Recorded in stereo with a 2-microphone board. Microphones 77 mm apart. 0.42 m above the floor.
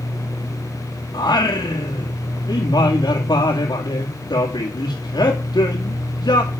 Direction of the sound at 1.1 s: 65° left (ahead or behind).